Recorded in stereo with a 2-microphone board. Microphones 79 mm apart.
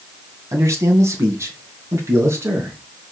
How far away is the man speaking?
About 2 m.